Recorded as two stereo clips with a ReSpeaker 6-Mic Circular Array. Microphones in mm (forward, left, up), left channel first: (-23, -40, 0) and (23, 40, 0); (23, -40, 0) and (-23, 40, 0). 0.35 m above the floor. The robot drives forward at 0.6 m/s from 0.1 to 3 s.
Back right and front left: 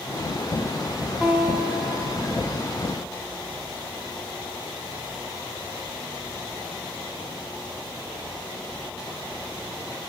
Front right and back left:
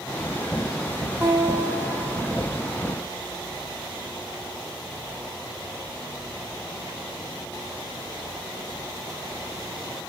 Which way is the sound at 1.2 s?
130° left.